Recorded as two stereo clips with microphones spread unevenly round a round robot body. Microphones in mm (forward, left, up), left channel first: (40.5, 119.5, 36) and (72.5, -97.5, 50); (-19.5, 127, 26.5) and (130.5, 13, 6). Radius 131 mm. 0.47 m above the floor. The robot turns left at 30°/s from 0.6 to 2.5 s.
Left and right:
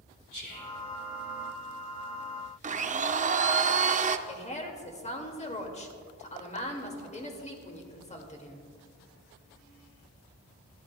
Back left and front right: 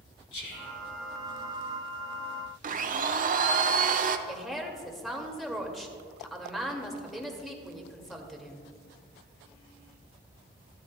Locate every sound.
0.3 s whispering: 145° left, 3 m; by 0.8 s 140° left, 3 m
2.6 s a blender: 30° right, 0.6 m
4.3 s a woman speaking: 50° left, 1.8 m